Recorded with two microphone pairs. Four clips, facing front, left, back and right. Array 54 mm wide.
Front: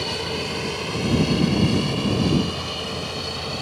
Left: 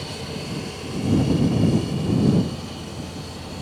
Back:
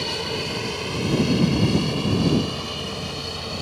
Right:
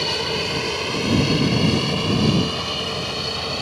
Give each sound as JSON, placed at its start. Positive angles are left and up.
{"t": 0.0, "sound": "an aircraft", "azimuth_deg": -95}